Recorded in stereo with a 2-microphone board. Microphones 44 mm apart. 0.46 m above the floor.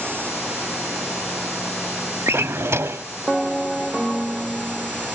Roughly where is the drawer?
Right.